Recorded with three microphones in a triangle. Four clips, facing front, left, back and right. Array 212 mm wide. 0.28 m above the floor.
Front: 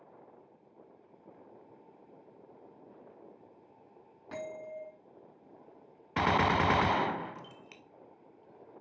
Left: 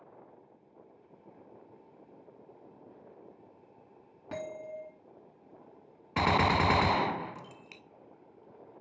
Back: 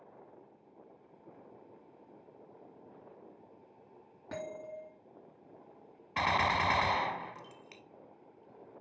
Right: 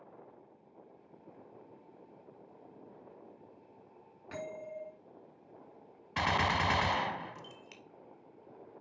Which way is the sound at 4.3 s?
125° left.